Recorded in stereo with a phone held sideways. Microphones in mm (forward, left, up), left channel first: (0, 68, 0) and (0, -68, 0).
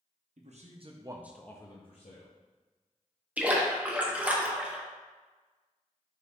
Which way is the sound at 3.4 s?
10° right (ahead or behind).